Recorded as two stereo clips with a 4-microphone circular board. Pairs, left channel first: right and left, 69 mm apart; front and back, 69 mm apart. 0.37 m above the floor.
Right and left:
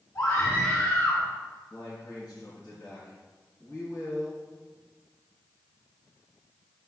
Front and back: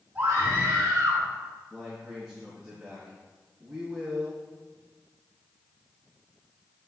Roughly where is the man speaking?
Right.